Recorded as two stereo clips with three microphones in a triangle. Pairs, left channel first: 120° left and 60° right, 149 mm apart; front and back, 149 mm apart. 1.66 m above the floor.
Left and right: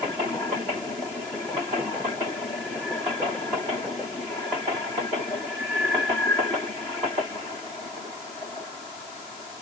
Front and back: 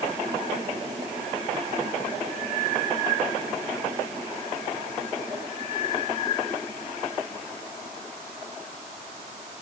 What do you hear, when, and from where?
Only background noise.